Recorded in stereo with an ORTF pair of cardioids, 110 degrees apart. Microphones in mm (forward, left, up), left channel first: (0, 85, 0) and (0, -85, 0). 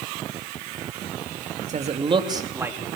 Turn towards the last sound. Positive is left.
turn(degrees=-5)